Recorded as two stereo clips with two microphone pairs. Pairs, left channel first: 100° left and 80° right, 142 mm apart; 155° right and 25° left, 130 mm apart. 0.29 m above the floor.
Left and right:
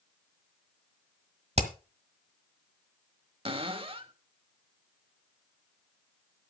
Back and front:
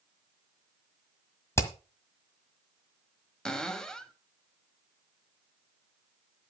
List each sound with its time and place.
1.6 s hammering: 90° right, 1.6 m
3.5 s a cupboard door: 70° right, 1.2 m